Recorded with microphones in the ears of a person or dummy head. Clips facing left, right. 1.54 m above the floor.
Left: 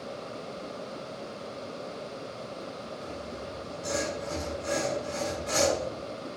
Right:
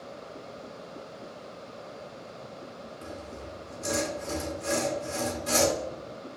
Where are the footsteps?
I don't hear footsteps.